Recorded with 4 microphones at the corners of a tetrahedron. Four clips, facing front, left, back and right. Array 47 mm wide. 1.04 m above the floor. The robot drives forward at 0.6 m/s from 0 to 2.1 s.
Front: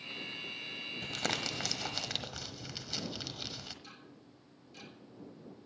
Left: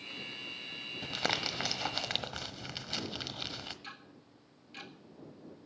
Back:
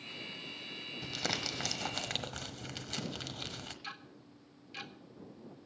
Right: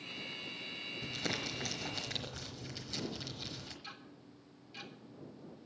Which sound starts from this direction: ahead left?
Crumpling, at 1.0 s.